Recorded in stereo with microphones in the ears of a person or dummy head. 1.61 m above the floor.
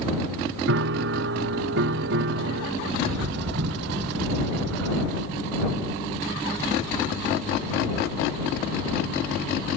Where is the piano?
65° right (ahead or behind).